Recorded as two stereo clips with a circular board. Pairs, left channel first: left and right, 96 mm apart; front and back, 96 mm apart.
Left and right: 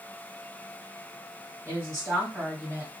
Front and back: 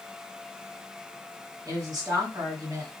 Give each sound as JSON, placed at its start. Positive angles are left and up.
{"t": 1.6, "sound": "a woman speaking", "azimuth_deg": -140, "distance_m": 2.0}